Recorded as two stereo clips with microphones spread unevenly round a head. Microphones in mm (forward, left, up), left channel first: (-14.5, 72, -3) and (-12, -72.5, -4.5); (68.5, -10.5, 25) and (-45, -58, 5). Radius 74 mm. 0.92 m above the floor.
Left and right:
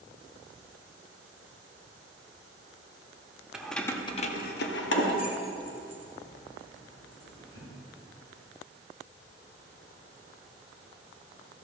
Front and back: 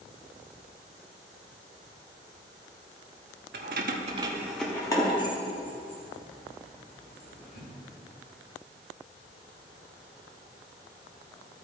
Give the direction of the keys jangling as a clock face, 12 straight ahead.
6 o'clock.